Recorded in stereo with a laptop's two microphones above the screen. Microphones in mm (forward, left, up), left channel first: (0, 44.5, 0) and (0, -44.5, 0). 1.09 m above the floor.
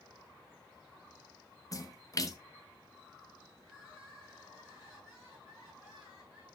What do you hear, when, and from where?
1.7 s a splash: 40° left (ahead or behind), 0.9 m
3.6 s crying: 30° right (ahead or behind), 7.5 m